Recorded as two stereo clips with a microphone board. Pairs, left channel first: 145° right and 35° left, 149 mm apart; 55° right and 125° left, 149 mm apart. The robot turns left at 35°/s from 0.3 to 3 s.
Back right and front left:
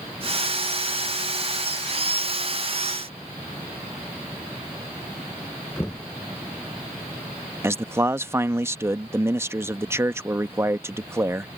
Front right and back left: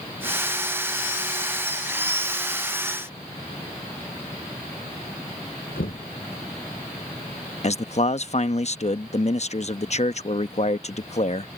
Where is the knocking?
70° right.